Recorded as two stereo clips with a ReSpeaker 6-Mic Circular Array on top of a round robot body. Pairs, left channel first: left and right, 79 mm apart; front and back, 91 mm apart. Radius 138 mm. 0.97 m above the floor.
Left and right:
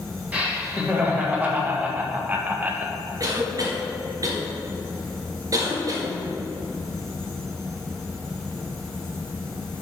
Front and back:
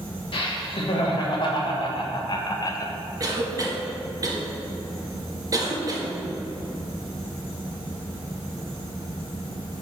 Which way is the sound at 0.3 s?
20° right.